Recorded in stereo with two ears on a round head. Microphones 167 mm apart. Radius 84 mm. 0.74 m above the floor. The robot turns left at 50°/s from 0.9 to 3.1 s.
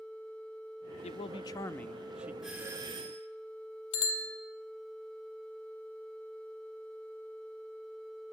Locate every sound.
1.0 s a man speaking: 50° left, 0.6 m; by 2.3 s 15° right, 0.6 m
2.4 s a doorbell: straight ahead, 2.5 m; by 3.3 s 35° right, 2.5 m
3.9 s a bicycle bell: 80° left, 2.5 m